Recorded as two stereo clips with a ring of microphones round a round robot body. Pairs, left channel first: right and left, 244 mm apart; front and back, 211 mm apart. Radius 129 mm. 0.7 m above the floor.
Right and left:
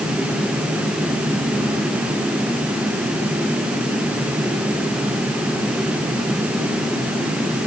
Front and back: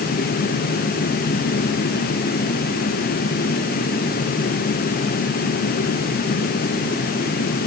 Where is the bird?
No bird in this recording.